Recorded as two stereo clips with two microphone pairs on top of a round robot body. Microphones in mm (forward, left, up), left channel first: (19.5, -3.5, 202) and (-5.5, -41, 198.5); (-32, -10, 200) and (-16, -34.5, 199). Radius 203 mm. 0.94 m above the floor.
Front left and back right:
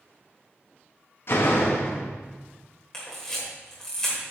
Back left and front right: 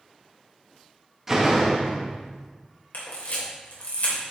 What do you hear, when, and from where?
1.3 s a door slam: 25° left, 0.8 m
2.9 s a camera shutter: 135° left, 2.5 m